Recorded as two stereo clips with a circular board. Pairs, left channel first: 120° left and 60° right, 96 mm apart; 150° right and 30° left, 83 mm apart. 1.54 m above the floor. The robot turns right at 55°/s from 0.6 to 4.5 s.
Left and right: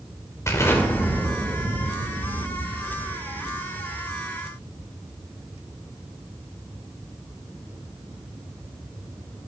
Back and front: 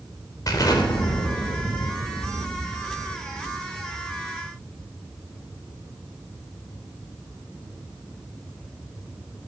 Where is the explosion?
175° left, 2.5 m; by 4.9 s 30° left, 2.5 m.